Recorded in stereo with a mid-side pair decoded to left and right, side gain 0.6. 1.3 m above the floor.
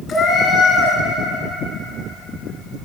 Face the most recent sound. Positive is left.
turn(degrees=50)